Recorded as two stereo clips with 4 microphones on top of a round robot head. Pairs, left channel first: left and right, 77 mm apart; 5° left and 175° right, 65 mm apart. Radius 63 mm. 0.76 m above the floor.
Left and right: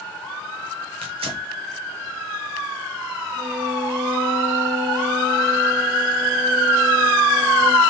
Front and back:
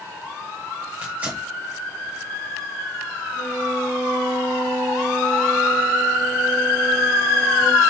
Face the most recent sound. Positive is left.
turn(degrees=-75)